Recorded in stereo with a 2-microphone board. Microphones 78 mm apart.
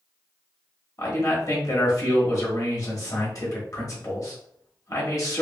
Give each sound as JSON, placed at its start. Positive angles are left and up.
{"t": 1.0, "sound": "a man speaking", "side_deg": 45, "distance_m": 1.2}